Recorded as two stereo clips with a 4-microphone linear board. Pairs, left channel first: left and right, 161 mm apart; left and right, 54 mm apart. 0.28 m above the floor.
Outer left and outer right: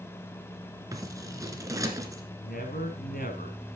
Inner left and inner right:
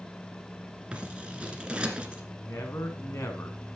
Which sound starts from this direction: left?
A man speaking, at 2.4 s.